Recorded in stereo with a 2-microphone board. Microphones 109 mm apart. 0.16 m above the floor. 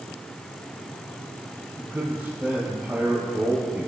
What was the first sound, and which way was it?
A man speaking, 20° right (ahead or behind).